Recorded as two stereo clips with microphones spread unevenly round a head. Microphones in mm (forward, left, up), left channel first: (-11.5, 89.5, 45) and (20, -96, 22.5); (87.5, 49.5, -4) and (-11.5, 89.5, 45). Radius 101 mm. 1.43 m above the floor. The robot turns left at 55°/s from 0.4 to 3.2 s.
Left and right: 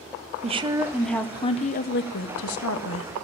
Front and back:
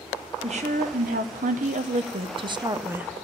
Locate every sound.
0.4 s a woman speaking: 135° right, 0.9 m; by 3.1 s 75° left, 0.9 m